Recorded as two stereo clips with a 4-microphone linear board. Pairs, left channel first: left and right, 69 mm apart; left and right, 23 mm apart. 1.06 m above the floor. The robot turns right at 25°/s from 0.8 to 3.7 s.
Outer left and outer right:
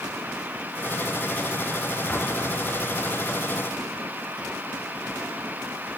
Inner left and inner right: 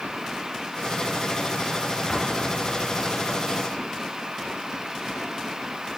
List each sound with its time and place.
2.1 s an explosion: 25° left (ahead or behind), 1.4 m; by 3.0 s 5° left (ahead or behind), 1.4 m